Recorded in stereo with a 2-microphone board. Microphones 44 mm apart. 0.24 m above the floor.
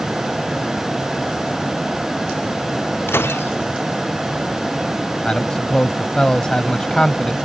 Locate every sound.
3.1 s breaking glass: 65° left (ahead or behind)
5.2 s a man speaking: 20° left (ahead or behind)